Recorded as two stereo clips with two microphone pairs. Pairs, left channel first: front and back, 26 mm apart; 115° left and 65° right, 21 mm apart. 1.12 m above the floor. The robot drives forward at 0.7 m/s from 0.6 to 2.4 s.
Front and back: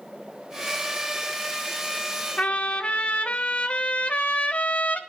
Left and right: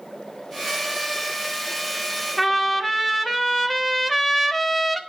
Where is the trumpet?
40° left, 1.2 m.